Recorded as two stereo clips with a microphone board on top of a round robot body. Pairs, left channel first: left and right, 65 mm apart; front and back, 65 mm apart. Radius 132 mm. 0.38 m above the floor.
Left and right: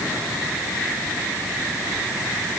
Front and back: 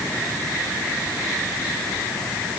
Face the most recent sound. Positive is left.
No sound to turn to.